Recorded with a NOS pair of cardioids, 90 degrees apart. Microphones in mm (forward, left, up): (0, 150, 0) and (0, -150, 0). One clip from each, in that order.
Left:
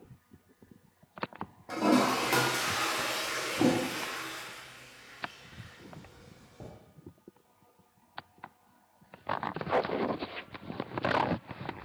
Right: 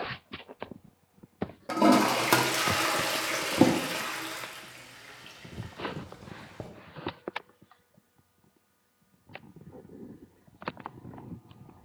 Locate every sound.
1.7 s a toilet flushing: 45° right, 0.5 m